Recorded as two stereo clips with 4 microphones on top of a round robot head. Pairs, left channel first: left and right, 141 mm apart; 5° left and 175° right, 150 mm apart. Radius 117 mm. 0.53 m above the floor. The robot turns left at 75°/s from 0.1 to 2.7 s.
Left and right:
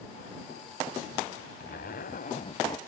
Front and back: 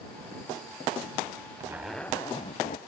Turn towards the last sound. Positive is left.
turn(degrees=35)